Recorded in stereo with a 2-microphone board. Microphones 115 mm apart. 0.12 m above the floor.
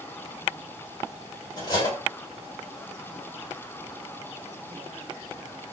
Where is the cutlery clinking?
35° left (ahead or behind), 1.7 m.